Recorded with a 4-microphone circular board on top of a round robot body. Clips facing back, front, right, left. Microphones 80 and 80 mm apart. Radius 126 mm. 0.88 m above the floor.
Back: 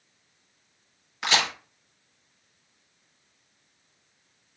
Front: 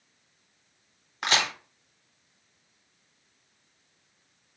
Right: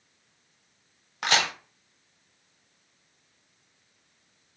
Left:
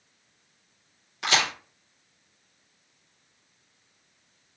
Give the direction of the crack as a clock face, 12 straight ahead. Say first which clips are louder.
Back 1 dB, even; 2 o'clock.